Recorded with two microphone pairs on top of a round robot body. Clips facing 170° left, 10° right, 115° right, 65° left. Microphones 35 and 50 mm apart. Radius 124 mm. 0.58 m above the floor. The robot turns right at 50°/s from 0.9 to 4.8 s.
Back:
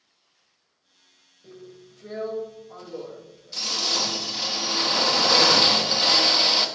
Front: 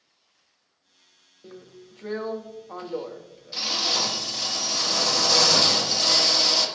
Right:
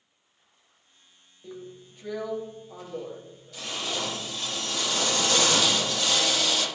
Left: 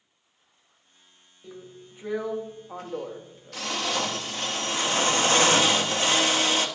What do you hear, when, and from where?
1.4 s a drill: 45° right, 1.5 m; by 6.7 s 125° left, 1.5 m